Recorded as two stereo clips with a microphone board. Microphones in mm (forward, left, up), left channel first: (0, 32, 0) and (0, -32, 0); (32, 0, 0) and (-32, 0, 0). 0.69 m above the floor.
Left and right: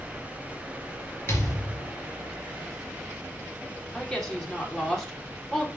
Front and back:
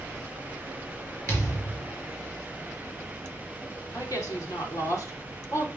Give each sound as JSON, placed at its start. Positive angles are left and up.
{"t": 1.3, "sound": "a thud", "azimuth_deg": 40, "distance_m": 4.0}
{"t": 3.9, "sound": "a woman speaking", "azimuth_deg": 5, "distance_m": 2.5}